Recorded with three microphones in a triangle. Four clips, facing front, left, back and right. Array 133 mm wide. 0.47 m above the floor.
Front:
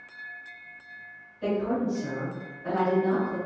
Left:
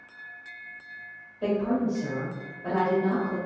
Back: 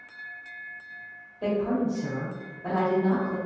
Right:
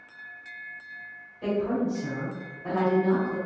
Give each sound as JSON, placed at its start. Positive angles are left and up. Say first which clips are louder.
{"t": 1.4, "sound": "a woman speaking", "louder": "left 1 dB, back 1 dB", "azimuth_deg": 140, "distance_m": 1.8}